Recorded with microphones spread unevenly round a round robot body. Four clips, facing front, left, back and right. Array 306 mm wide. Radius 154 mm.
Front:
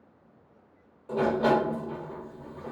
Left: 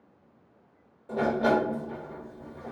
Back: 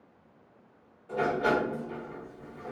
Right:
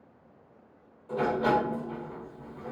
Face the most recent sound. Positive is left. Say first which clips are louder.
# left 1 dB, front 3 dB
turn(degrees=40)